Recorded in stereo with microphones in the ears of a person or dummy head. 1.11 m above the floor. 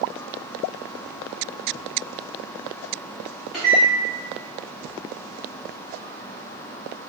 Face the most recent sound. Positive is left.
turn(degrees=-5)  # may be behind; listen again after turning